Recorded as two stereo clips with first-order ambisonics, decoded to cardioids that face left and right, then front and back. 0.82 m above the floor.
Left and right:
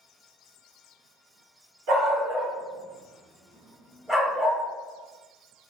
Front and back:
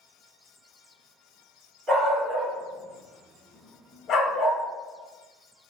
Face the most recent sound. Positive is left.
turn(degrees=25)